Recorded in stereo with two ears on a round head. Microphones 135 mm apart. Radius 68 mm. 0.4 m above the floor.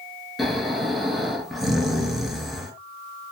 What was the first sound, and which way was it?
Snoring, centre (ahead or behind).